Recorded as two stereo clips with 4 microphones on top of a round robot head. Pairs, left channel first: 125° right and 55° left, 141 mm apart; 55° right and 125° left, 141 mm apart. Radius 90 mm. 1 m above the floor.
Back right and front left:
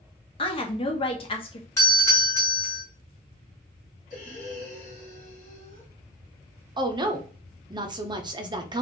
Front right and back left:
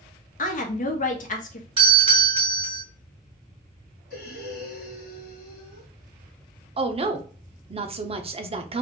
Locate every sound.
0.4 s a woman speaking: 75° right, 1.1 m
1.8 s a doorbell: 175° left, 2 m
4.1 s breathing: 85° right, 1.8 m
6.8 s a woman speaking: 100° left, 0.7 m